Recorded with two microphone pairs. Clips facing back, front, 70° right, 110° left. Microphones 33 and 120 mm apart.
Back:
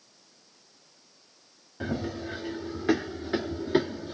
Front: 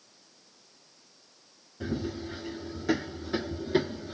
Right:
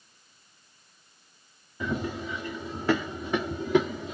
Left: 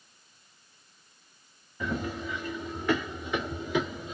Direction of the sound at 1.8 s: 145° right.